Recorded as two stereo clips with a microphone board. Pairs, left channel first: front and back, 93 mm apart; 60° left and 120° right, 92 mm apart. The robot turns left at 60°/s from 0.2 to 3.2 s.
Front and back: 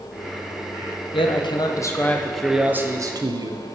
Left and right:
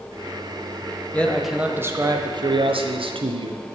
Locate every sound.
1.1 s a man speaking: 15° right, 0.6 m; by 3.6 s 135° right, 0.6 m